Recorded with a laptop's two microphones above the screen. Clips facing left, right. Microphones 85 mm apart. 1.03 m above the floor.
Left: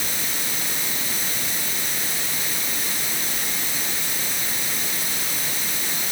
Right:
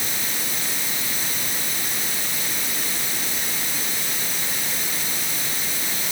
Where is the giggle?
No giggle in this recording.